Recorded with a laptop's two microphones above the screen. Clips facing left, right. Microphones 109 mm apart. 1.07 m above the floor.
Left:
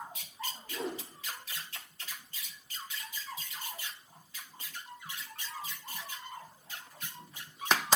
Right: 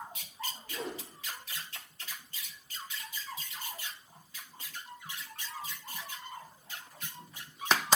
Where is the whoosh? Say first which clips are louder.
Left 3 dB; 30° left (ahead or behind), 4.5 m.